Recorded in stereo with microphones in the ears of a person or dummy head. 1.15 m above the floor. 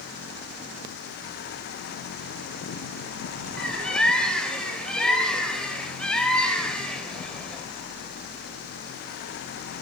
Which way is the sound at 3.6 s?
5° left (ahead or behind).